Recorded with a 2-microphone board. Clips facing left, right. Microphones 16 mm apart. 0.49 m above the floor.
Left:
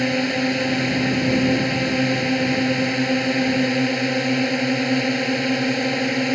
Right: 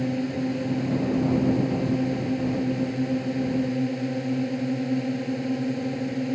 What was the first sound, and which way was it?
A drone, 60° left (ahead or behind).